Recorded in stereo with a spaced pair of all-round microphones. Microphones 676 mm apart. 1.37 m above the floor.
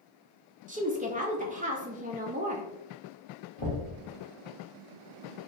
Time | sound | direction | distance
0.7 | a woman speaking | 15° right (ahead or behind) | 0.6 m
3.6 | knocking | 50° left (ahead or behind) | 1.0 m